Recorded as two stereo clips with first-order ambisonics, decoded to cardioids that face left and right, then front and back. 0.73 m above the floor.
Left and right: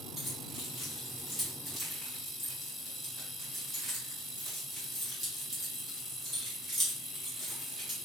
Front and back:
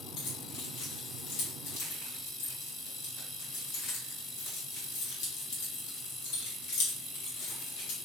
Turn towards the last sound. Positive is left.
turn(degrees=5)